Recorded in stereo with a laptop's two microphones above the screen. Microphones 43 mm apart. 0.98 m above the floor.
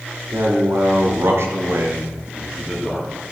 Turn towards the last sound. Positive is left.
turn(degrees=5)  # may be behind; listen again after turning